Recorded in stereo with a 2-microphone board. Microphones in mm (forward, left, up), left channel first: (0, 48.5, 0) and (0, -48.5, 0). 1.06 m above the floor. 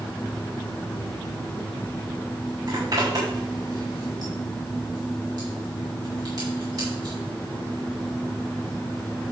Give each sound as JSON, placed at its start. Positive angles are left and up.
{"t": 2.7, "sound": "a zipper", "side_deg": -45, "distance_m": 6.5}